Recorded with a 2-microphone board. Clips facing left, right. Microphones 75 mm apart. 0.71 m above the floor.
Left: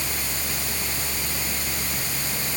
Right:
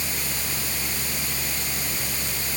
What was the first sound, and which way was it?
Only background noise.